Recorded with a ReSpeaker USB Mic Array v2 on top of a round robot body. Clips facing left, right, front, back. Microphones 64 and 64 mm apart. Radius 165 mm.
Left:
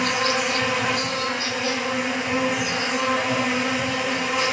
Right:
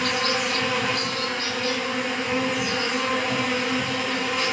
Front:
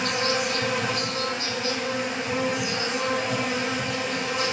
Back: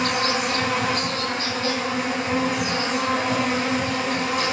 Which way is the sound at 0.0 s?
170° left.